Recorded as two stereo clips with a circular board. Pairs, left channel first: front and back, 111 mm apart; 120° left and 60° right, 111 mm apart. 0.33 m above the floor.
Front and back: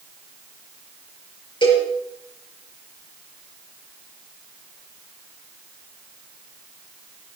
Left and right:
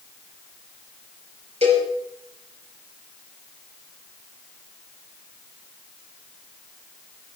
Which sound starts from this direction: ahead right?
A cowbell, at 1.6 s.